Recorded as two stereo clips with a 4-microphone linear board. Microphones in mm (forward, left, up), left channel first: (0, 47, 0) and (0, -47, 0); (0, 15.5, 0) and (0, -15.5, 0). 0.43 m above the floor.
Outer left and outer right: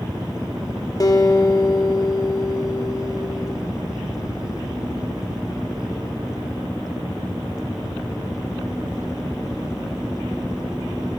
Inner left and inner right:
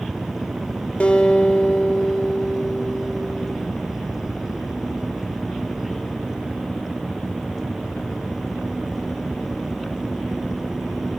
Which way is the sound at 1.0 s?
40° left (ahead or behind).